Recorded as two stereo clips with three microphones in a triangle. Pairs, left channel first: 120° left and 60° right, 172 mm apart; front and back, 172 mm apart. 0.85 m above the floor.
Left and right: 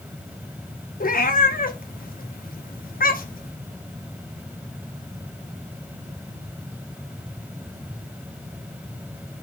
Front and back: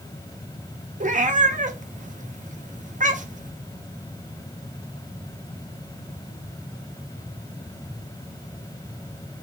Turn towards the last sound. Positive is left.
turn(degrees=145)